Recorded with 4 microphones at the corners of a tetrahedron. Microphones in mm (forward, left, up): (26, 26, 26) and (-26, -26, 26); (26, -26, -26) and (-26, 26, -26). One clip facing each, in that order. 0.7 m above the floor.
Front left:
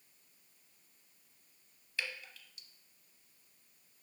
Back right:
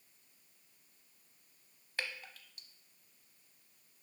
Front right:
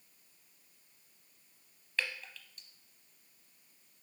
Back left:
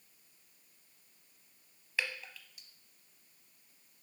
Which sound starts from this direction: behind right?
Dripping, at 2.0 s.